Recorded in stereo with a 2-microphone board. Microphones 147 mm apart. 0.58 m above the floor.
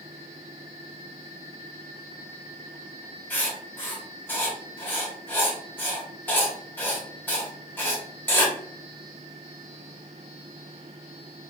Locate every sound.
3.3 s writing: 15° left (ahead or behind), 0.9 m